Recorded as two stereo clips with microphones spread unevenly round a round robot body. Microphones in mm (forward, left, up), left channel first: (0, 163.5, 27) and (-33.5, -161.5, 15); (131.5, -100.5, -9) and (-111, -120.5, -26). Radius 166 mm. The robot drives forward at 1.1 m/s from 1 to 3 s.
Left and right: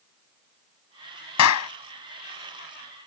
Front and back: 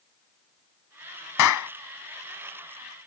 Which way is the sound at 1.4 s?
40° left.